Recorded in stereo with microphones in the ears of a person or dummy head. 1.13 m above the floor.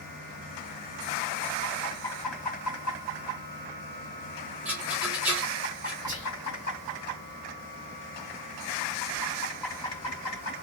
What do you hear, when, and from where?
4.7 s a rattle: 10° right (ahead or behind), 1.4 m
6.1 s whispering: 15° right (ahead or behind), 1.9 m